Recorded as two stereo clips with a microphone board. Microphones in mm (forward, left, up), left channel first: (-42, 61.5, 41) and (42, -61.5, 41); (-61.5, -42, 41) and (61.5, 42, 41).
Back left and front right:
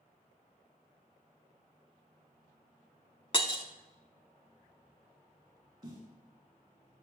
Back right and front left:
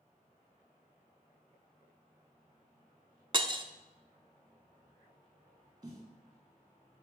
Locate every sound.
3.3 s breaking glass: 80° left, 0.6 m
5.8 s a snare drum: 20° right, 1.6 m